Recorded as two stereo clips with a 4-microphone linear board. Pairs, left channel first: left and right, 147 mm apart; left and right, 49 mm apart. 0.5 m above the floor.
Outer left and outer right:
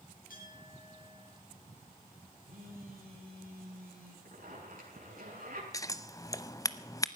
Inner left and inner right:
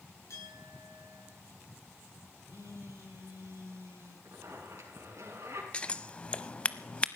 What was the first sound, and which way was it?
A clink, 65° left (ahead or behind).